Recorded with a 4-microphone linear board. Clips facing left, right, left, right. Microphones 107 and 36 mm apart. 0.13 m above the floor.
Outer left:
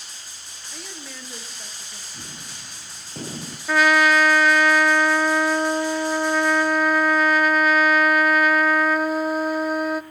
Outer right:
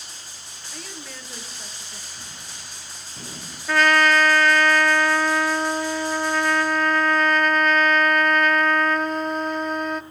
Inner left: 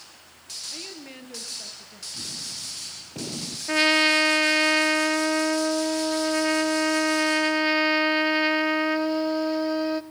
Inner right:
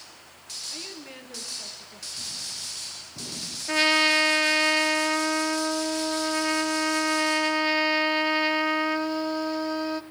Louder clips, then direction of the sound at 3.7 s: Outer left 1 dB, inner left 1 dB; 5° left (ahead or behind).